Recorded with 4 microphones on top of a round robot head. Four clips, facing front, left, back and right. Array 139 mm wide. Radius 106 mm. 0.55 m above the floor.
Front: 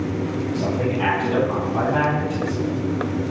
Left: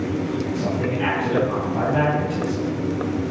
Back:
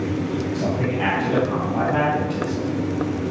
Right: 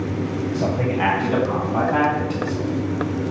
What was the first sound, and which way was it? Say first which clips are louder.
A man speaking: right 2 dB, front 3 dB; 95° right.